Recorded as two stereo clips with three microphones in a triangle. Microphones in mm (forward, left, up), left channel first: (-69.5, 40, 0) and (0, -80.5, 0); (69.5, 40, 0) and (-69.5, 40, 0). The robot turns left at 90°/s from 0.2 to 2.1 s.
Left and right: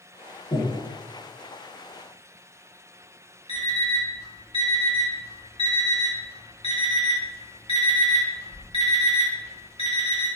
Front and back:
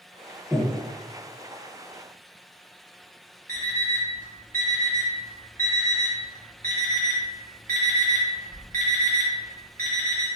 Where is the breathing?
95° left, 0.5 m; by 0.8 s 70° left, 0.5 m.